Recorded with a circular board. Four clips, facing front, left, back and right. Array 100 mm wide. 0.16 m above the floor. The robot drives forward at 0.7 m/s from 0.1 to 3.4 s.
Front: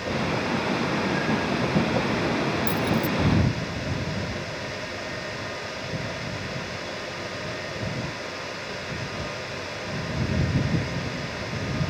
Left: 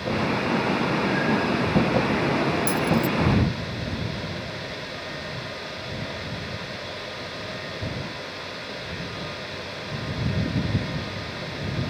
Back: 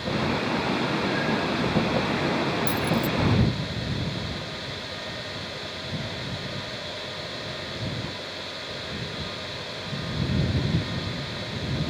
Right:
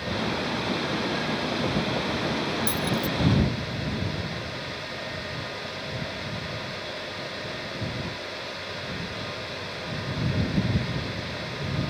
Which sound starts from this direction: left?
Keys jangling, at 2.7 s.